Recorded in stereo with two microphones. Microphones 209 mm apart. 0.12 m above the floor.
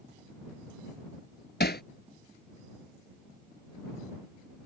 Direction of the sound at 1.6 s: 50° left (ahead or behind).